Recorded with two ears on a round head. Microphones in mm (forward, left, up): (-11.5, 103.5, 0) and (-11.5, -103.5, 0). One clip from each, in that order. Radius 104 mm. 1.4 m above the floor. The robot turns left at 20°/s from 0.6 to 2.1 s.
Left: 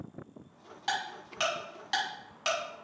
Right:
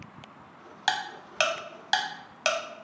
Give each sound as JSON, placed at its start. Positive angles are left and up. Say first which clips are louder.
{"t": 0.9, "sound": "ticking", "louder": "right 5 dB", "side_deg": -60, "distance_m": 0.7}